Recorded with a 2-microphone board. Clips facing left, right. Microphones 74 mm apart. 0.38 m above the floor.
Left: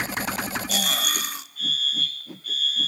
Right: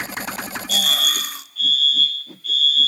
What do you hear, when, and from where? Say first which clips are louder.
0.7 s a fire alarm: right 3 dB; 35° left (ahead or behind), 3.5 m